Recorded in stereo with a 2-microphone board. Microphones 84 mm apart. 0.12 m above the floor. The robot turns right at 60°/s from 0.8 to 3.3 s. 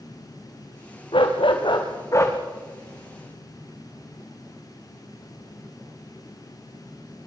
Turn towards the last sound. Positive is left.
turn(degrees=-150)